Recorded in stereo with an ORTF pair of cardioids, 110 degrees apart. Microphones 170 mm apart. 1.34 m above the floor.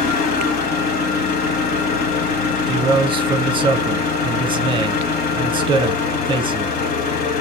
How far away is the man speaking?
About 0.8 m.